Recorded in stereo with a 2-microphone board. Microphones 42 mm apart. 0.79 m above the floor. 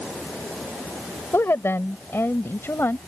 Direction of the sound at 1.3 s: 80° left.